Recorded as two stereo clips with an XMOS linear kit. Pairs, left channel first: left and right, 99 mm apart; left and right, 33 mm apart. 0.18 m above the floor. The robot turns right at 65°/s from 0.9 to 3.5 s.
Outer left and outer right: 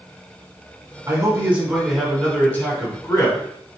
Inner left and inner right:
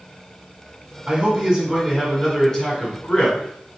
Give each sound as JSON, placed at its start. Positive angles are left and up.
{"t": 1.1, "sound": "a man speaking", "azimuth_deg": -60, "distance_m": 1.9}